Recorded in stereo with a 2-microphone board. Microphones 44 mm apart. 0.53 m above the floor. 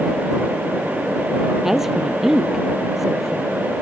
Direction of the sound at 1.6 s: 5° right (ahead or behind).